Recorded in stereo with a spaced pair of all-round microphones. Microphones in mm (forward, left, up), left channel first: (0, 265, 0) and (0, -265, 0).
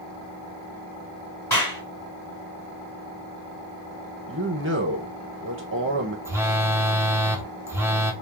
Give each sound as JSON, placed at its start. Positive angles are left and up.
{"t": 1.5, "sound": "a clap", "side_deg": 35, "distance_m": 2.5}
{"t": 4.3, "sound": "a man speaking", "side_deg": -25, "distance_m": 0.8}
{"t": 6.2, "sound": "a phone buzzing", "side_deg": -5, "distance_m": 0.7}